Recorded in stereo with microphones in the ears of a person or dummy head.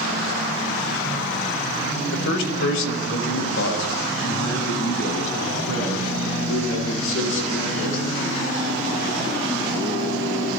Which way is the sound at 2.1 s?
70° left (ahead or behind).